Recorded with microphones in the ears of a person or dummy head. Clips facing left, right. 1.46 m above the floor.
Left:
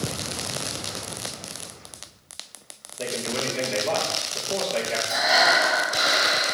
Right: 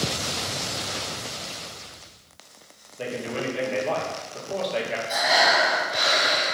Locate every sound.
3.0 s a man speaking: 5° right (ahead or behind), 1.5 m
5.1 s breathing: 5° left (ahead or behind), 1.8 m